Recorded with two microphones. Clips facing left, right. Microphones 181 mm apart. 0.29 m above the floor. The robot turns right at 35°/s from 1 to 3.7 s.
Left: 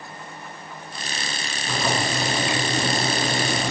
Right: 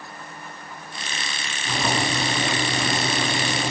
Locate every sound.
1.7 s boiling: 10° right, 2.5 m; by 3.7 s 65° left, 2.5 m